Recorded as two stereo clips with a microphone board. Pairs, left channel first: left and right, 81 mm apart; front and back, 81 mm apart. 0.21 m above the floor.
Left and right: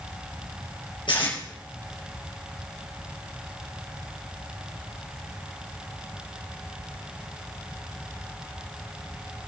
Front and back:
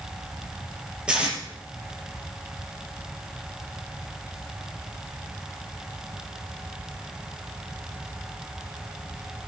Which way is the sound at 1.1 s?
105° left.